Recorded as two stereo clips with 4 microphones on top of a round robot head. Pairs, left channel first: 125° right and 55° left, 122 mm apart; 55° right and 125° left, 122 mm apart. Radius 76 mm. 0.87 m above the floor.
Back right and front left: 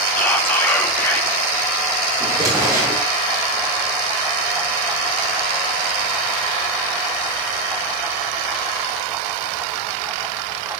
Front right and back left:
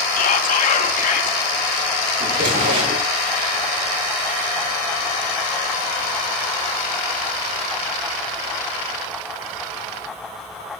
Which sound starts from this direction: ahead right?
Whispering, at 0.2 s.